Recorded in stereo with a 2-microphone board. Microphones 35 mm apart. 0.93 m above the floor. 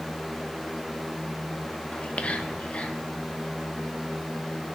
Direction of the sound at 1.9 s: 45° left (ahead or behind).